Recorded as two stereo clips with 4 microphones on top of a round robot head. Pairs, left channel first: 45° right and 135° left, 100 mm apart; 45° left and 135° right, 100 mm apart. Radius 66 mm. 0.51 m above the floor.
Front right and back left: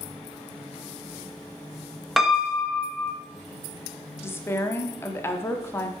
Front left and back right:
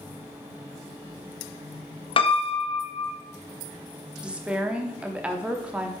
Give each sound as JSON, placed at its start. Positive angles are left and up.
{"t": 2.2, "sound": "a piano", "azimuth_deg": 45, "distance_m": 0.9}
{"t": 4.2, "sound": "a woman speaking", "azimuth_deg": -70, "distance_m": 0.8}